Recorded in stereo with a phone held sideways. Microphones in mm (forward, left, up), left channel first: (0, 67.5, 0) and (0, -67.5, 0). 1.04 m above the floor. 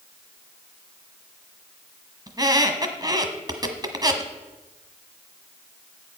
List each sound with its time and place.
2.3 s a squeak: 30° right (ahead or behind), 1.3 m